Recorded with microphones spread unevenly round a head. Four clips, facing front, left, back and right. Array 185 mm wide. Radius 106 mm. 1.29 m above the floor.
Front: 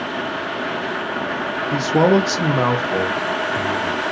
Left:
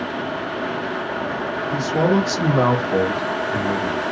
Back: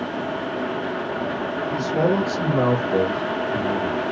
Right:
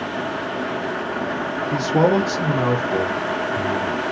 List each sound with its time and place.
1.7 s a man speaking: 40° right, 0.7 m; by 4.0 s 95° left, 1.5 m